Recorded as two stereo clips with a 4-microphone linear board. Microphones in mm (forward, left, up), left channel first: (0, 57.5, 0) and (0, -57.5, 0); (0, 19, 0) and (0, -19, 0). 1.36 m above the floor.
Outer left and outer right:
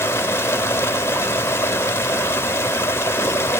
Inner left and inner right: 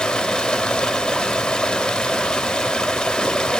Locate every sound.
0.0 s running water: 20° left (ahead or behind), 1.1 m